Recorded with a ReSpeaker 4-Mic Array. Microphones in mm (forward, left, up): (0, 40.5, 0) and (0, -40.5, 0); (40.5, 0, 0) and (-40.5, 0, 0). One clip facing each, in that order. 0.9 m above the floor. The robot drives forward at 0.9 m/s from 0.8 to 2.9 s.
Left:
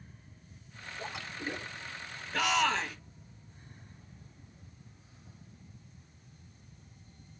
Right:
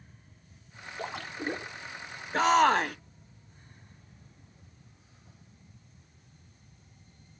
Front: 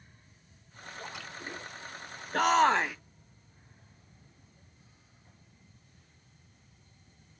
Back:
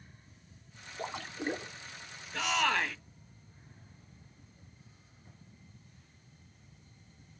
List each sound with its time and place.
1.0 s a splash: 125° right, 1.4 m; by 1.7 s 145° right, 1.9 m
2.3 s a shout: 35° right, 0.8 m; by 3.0 s 75° right, 0.5 m